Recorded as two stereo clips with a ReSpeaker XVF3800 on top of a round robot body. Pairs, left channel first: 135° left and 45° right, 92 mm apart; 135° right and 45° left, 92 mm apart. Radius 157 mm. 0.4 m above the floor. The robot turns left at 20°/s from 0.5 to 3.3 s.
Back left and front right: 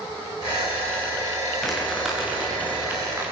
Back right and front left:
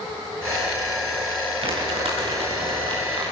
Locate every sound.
1.6 s crumpling: 45° left, 7.5 m; by 3.3 s 15° left, 7.5 m